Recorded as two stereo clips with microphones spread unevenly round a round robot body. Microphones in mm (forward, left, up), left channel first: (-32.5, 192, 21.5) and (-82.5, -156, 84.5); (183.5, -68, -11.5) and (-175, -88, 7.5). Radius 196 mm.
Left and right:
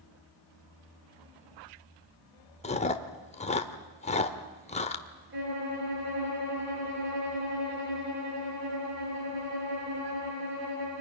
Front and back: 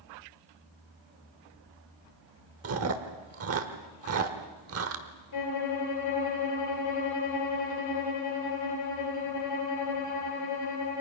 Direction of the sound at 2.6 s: 140° left.